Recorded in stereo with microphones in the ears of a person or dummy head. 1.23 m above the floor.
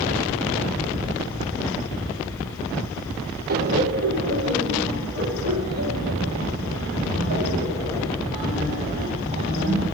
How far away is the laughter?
About 0.6 m.